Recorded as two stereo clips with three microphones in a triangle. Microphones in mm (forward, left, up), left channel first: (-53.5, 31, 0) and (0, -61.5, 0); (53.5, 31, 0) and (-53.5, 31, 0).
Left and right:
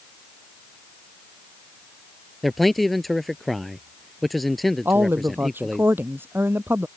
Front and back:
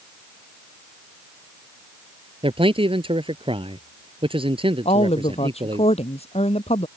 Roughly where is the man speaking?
Behind right.